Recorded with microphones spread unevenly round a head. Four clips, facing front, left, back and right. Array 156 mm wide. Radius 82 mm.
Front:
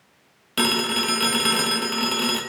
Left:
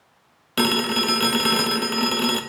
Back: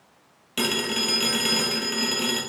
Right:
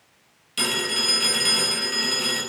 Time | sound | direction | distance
0.6 | a phone ringing | 85° left | 0.7 m